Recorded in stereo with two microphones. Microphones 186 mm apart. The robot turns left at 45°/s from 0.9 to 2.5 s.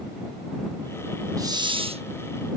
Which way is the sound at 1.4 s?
20° right (ahead or behind).